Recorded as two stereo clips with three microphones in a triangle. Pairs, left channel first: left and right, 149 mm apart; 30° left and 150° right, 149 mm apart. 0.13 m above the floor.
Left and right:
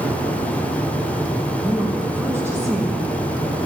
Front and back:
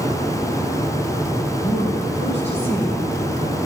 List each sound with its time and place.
1.6 s a woman speaking: 10° right, 3.5 m; by 3.6 s 25° right, 5.5 m